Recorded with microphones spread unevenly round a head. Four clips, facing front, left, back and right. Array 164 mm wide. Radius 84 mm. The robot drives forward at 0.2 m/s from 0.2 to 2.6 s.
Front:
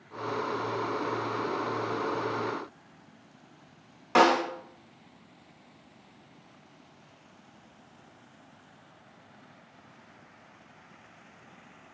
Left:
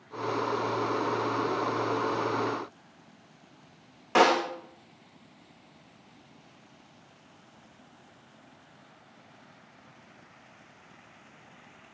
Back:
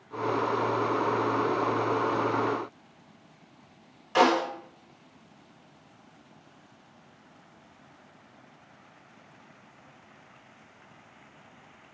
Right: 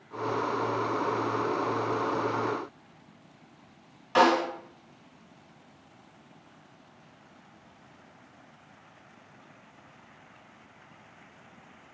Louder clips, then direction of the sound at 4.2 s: Even, front 1 dB; 40° left.